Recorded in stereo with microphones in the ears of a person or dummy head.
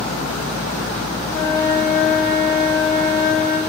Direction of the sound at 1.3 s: 30° left (ahead or behind).